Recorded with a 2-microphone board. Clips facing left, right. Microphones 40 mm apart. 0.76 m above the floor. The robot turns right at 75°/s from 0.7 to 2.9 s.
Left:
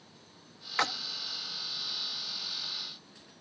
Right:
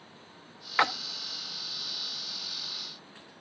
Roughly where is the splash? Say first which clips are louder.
Right 5 dB; right.